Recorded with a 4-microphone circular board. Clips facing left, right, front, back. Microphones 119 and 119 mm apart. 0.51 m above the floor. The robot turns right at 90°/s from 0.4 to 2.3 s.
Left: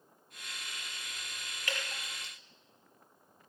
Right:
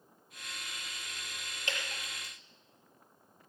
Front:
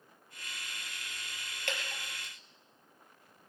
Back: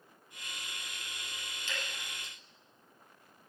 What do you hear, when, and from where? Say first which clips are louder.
1.7 s dripping: even, front 3 dB; 25° right, 5 m; by 2.3 s 30° left, 5 m